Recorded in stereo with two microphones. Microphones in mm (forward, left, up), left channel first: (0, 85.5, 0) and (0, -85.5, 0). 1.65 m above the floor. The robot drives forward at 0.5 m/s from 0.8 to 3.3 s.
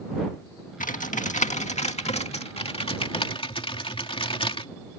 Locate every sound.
0.8 s typing on a keyboard: 50° left (ahead or behind); by 4.7 s 30° left (ahead or behind)